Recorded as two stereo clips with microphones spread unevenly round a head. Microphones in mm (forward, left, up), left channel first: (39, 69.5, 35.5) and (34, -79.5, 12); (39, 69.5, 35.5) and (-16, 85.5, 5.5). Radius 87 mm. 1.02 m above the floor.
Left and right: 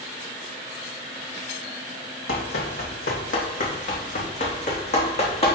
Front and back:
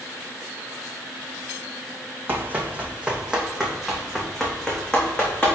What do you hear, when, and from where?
2.3 s running footsteps: 100° left, 2.5 m; by 5.5 s 50° left, 4 m